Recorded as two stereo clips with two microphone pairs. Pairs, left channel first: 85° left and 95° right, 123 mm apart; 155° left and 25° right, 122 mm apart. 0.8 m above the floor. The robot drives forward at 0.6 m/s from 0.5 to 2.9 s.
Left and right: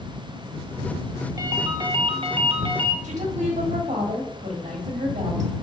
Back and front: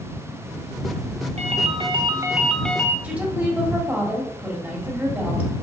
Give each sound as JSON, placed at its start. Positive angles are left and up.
{"t": 1.4, "sound": "a ringtone", "azimuth_deg": -35, "distance_m": 0.8}
{"t": 3.0, "sound": "a woman speaking", "azimuth_deg": -105, "distance_m": 1.6}